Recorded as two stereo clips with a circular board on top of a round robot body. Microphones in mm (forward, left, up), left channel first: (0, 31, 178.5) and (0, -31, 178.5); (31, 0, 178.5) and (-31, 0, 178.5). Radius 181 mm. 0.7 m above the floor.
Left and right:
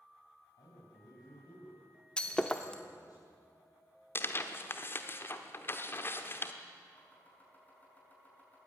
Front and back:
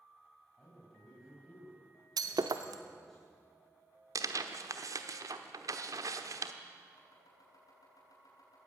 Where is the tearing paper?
145° left, 1.0 m.